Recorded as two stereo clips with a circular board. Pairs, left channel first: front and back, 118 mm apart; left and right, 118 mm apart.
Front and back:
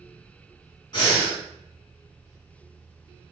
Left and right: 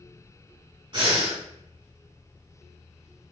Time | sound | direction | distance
0.9 | breathing | 50° right | 1.9 m